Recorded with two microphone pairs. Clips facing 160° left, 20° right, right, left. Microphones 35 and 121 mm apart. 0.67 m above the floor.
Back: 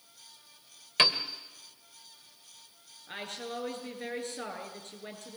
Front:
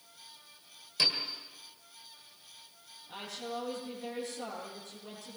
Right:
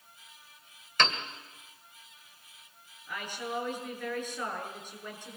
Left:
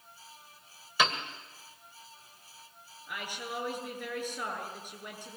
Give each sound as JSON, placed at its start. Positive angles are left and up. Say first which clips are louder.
{"t": 1.0, "sound": "a piano", "louder": "back 5 dB, even", "azimuth_deg": 170, "distance_m": 1.8}
{"t": 3.1, "sound": "a woman speaking", "louder": "back 1 dB, right 3 dB", "azimuth_deg": 170, "distance_m": 8.5}